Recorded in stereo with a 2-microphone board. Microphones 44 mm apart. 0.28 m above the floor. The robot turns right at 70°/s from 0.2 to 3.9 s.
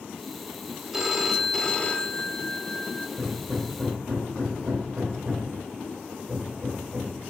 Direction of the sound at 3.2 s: 15° right (ahead or behind).